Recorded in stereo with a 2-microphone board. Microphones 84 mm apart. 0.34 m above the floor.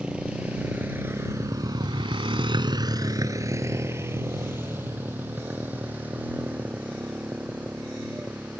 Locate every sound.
0.0 s a motorcycle: 10° right (ahead or behind); by 8.6 s 15° right (ahead or behind)